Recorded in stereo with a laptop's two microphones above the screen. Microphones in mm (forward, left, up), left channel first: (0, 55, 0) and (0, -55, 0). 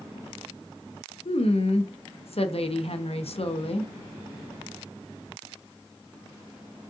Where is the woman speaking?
65° left (ahead or behind), 0.6 m.